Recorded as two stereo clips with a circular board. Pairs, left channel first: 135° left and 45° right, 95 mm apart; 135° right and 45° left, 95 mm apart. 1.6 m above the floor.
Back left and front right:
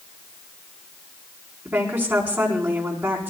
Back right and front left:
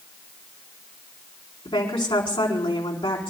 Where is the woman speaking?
115° right, 4 m.